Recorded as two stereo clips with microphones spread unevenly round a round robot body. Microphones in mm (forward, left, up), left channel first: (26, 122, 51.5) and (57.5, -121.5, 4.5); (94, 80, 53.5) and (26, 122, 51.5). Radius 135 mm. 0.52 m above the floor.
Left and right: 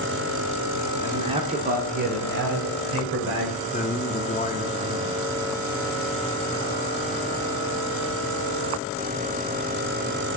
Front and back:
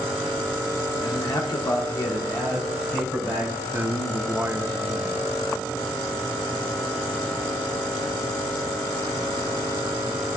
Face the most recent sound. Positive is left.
turn(degrees=150)